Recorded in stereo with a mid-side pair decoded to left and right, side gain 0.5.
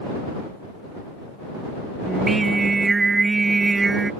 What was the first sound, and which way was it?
Singing, 25° right.